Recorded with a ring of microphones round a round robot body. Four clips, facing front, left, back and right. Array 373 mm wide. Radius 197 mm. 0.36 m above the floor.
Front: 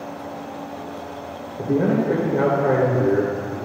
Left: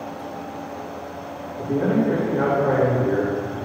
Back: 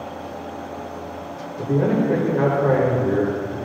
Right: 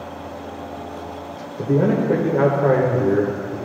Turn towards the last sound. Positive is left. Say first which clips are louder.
# right 2 dB, even
turn(degrees=-75)